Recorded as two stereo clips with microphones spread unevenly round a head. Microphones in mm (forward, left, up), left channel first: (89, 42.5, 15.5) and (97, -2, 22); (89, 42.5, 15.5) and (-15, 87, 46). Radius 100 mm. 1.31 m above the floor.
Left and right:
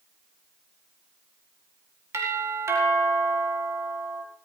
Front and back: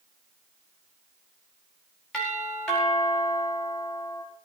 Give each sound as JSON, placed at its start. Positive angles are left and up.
{"t": 2.1, "sound": "a doorbell", "azimuth_deg": -105, "distance_m": 5.0}